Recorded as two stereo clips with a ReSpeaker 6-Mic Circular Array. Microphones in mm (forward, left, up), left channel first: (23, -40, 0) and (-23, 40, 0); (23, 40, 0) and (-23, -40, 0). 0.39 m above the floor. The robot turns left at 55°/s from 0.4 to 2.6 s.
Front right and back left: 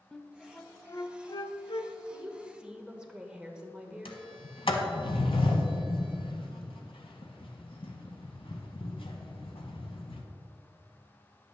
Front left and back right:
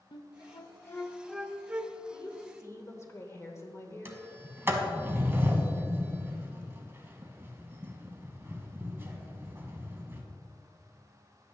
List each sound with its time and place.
0.1 s a flute: 25° left, 0.5 m; by 1.9 s 60° right, 0.5 m
2.1 s a woman speaking: 70° left, 1.1 m; by 4.2 s 45° left, 1.1 m
4.0 s a sliding door: 55° right, 1.0 m